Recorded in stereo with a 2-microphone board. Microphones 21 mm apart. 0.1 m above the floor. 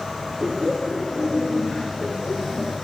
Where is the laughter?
5° left (ahead or behind), 1.4 m; by 2.7 s 60° left (ahead or behind), 2.5 m.